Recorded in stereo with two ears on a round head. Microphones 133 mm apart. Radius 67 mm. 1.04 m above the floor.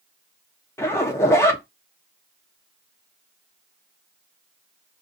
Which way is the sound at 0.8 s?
20° left (ahead or behind).